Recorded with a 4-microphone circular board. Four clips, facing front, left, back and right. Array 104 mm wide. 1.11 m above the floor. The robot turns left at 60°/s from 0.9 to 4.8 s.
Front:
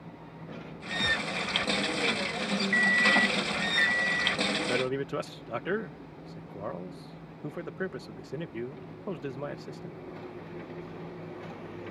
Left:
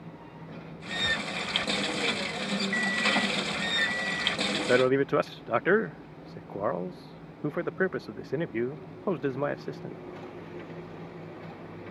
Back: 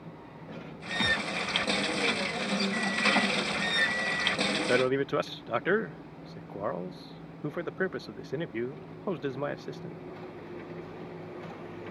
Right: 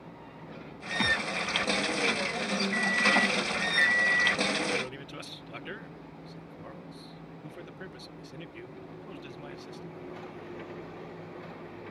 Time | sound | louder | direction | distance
1.0 | a thud | right 3 dB, back 1 dB | 115° right | ?
2.7 | an alarm clock | right 2 dB, front 4 dB | 10° left | ?
4.5 | a man speaking | left 10 dB, back 7 dB | 125° left | ?